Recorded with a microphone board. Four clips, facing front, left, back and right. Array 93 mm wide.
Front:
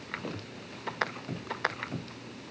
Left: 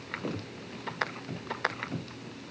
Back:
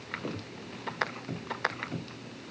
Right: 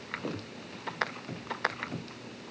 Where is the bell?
No bell in this recording.